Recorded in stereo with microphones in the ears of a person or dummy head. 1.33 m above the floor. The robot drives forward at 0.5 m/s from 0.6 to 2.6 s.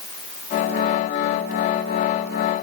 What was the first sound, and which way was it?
Only background noise.